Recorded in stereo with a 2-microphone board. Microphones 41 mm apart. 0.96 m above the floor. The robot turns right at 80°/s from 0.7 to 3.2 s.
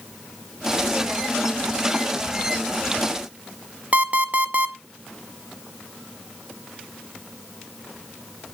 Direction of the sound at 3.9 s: 40° right (ahead or behind).